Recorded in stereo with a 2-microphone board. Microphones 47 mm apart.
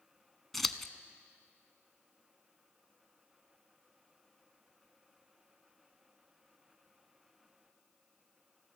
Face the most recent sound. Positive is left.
turn(degrees=0)  # may be behind; listen again after turning